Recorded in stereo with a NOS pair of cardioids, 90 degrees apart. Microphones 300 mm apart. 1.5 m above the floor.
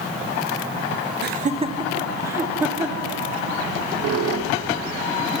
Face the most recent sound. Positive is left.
turn(degrees=-55)